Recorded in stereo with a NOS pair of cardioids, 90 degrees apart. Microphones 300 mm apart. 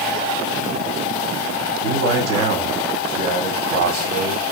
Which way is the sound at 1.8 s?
60° right.